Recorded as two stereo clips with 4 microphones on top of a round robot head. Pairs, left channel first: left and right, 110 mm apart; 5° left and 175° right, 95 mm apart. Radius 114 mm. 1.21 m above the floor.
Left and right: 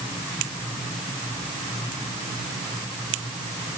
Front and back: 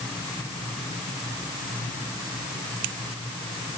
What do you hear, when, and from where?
Only background noise.